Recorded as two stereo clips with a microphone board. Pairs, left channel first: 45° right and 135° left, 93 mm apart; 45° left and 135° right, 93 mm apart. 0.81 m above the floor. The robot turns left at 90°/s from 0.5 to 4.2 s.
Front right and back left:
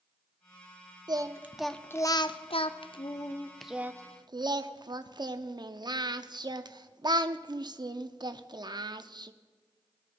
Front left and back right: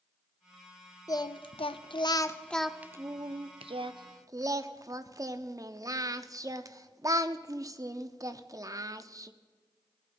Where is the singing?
95° left, 0.5 m; by 9.3 s 175° left, 0.5 m.